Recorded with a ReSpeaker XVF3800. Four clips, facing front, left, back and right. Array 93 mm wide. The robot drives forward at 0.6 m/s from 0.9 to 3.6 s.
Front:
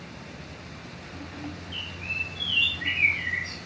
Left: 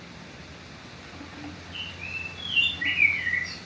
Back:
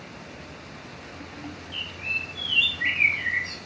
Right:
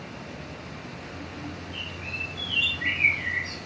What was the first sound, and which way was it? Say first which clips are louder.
A bird: right 2 dB, back 5 dB; 165° left.